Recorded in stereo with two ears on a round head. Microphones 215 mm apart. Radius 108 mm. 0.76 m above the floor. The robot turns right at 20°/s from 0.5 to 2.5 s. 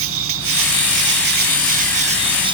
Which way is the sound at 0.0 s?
60° right.